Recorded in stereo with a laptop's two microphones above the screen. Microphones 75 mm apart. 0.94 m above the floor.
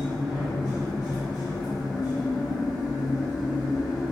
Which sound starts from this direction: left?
A machine running, at 0.0 s.